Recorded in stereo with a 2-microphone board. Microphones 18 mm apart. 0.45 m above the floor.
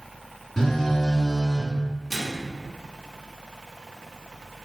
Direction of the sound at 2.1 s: 10° left (ahead or behind).